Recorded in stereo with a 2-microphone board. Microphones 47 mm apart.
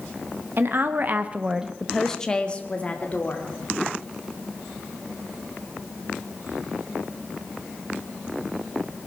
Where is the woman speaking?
55° right (ahead or behind), 1.3 m; by 3.5 s 35° left (ahead or behind), 2.5 m.